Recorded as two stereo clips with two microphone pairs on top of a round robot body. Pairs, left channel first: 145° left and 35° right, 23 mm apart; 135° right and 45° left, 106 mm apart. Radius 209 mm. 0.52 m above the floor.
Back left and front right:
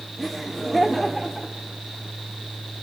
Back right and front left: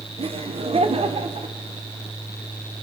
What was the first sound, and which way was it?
Laughter, 60° left.